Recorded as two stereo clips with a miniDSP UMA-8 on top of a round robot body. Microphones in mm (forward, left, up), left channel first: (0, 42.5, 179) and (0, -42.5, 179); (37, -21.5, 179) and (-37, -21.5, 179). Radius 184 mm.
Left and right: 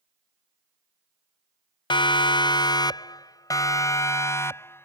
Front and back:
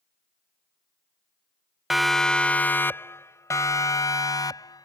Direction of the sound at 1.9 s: 95° left.